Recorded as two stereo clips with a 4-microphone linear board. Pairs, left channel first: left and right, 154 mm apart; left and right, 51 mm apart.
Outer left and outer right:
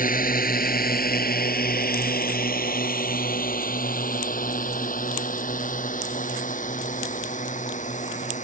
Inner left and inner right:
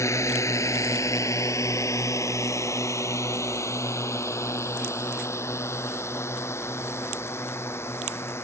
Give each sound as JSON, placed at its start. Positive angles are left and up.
{"t": 0.0, "sound": "a drone", "side_deg": 65}